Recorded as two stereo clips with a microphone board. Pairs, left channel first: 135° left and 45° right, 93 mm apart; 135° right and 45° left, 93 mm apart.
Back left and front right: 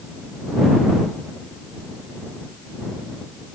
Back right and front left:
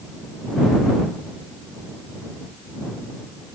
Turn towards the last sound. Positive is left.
No sound to turn to.